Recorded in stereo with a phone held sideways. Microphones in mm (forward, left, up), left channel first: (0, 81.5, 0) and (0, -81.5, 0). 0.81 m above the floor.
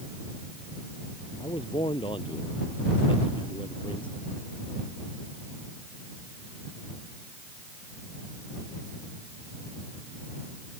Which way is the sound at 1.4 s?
30° left (ahead or behind).